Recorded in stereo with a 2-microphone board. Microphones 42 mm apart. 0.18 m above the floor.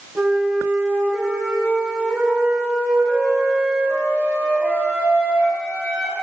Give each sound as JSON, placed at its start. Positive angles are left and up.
{"t": 0.1, "sound": "a flute", "side_deg": -80, "distance_m": 3.0}